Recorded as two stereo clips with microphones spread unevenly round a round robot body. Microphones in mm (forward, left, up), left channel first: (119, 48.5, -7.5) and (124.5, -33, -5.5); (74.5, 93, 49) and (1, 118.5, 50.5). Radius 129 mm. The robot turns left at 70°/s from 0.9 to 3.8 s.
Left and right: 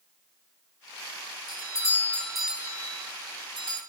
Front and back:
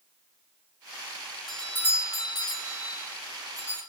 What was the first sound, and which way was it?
A doorbell, 65° left.